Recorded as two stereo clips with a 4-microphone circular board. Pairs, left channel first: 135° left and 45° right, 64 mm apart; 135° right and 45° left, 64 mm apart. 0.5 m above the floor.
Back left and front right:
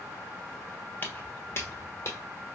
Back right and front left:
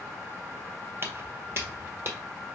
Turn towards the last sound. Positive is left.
turn(degrees=95)